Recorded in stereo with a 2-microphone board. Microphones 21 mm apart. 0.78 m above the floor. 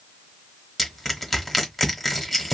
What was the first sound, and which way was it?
Crushing, 15° left (ahead or behind).